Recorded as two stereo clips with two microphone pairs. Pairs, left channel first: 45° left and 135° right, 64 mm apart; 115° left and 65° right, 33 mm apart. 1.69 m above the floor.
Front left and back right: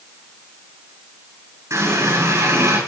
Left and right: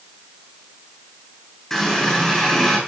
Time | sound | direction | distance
1.7 | a running tap | 165° right | 7.5 m